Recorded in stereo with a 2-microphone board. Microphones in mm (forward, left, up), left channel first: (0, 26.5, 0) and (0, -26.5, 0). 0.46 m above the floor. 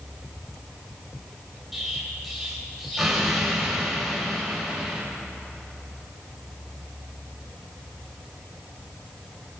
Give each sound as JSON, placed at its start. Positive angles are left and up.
{"t": 1.7, "sound": "an explosion", "side_deg": -5, "distance_m": 2.5}